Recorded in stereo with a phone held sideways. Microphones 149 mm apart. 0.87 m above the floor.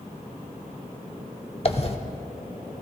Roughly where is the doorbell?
I don't hear a doorbell.